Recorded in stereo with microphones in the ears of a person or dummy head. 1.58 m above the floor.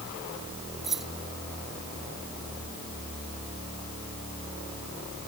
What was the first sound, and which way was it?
Keys jangling, centre (ahead or behind).